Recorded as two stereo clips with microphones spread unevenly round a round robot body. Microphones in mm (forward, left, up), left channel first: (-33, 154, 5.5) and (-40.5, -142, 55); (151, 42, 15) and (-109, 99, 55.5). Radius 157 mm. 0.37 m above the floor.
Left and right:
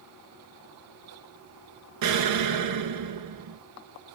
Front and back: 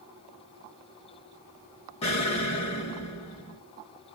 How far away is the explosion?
About 0.6 m.